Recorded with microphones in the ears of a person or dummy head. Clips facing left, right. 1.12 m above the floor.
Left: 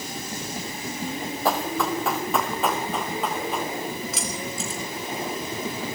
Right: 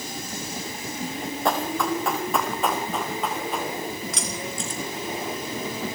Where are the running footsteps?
Centre (ahead or behind), 2.5 m; by 3.7 s 5° right (ahead or behind), 5 m.